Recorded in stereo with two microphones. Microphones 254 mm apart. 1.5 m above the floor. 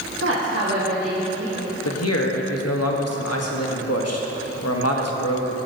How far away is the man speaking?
About 1.1 m.